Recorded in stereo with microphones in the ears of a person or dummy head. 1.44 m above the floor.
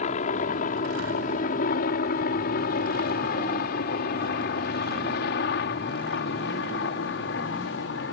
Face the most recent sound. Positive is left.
turn(degrees=70)  # may be behind; listen again after turning